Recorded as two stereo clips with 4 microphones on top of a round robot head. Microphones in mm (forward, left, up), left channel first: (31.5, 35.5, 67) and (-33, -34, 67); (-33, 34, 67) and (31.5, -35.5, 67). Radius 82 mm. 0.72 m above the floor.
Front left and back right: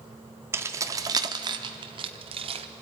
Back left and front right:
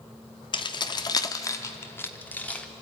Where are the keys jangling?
165° left, 1.2 m; by 2.7 s 150° right, 1.5 m.